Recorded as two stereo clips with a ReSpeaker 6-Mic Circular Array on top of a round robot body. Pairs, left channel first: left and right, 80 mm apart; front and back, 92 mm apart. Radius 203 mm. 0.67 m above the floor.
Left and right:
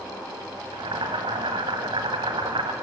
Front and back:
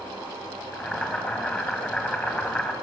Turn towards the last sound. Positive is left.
turn(degrees=-80)